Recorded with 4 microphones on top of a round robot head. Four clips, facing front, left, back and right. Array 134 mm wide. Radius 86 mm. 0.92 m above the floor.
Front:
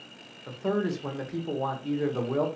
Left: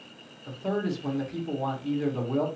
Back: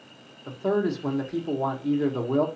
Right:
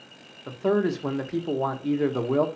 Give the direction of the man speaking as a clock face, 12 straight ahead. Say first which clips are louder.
Right 6 dB, back 3 dB; 3 o'clock.